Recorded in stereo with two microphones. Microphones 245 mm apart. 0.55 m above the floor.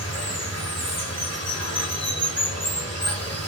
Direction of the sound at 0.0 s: 75° left (ahead or behind).